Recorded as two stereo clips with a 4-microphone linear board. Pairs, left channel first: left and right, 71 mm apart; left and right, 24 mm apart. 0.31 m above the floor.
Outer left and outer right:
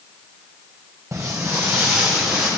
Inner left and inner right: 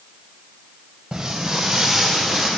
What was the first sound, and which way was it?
Footsteps, 35° right (ahead or behind).